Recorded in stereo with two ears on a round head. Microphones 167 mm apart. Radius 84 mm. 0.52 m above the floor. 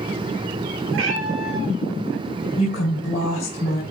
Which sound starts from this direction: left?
A woman speaking, at 2.6 s.